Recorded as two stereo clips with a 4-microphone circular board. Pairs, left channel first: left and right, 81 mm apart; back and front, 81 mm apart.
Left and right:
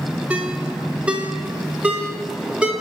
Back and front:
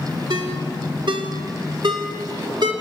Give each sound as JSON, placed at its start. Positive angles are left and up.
{"t": 0.3, "sound": "a ringtone", "azimuth_deg": -15, "distance_m": 2.5}